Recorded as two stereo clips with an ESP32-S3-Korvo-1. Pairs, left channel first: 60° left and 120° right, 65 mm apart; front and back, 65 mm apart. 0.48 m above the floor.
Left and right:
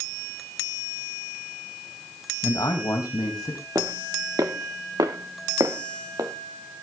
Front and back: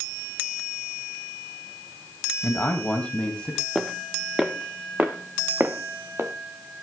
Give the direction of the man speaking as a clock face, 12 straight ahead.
10 o'clock.